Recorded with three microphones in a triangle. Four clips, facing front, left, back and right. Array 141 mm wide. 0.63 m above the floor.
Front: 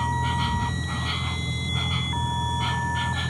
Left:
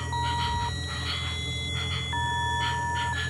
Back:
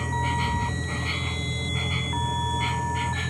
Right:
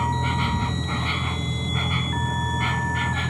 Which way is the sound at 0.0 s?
80° right.